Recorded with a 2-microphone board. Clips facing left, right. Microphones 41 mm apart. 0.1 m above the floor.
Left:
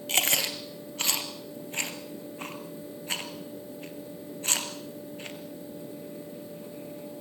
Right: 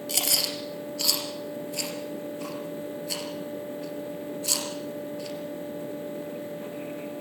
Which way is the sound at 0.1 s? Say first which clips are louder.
Left 3 dB; 45° left (ahead or behind).